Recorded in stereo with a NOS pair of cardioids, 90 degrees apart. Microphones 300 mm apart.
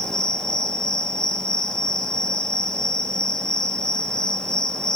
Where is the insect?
Straight ahead, 2 m.